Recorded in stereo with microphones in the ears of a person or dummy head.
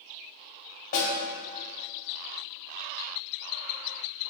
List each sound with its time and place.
0.9 s a snare drum: 50° left (ahead or behind), 2.5 m